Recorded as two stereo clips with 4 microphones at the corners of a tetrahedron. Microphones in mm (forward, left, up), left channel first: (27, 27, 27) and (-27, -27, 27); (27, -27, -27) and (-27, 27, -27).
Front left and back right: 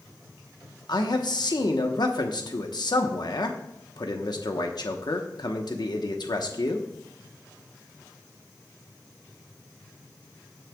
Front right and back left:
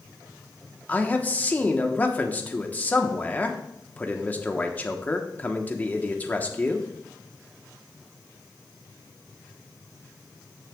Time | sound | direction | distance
0.9 | a man speaking | 25° left | 1.2 m